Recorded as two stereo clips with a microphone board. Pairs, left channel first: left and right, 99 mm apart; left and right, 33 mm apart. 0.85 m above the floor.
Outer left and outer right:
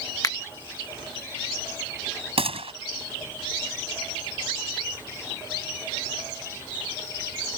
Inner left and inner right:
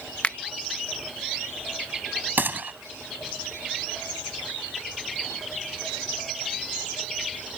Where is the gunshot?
80° right.